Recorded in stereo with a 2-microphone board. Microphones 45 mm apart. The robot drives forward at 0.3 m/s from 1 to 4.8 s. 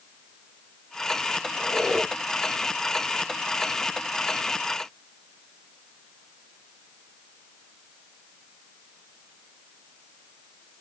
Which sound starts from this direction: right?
A squeak, at 1.5 s.